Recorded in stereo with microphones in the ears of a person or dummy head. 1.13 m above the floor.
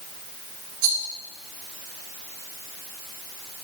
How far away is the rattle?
About 2 m.